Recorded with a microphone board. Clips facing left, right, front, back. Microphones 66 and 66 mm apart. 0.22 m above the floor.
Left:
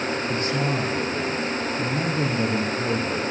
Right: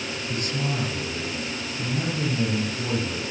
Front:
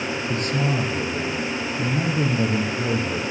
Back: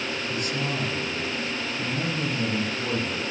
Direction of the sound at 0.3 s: 35° left.